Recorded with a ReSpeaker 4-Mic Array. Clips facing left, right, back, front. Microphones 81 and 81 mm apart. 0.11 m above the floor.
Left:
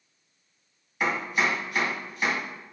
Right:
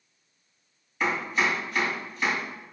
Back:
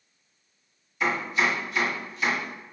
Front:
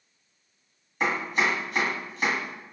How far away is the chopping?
About 1.9 m.